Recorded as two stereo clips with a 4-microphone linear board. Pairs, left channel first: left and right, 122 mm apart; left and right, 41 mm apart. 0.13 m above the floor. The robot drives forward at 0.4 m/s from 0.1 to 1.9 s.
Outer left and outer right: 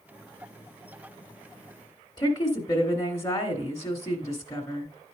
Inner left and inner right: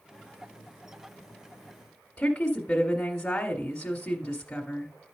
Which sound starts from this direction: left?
A woman speaking, at 2.2 s.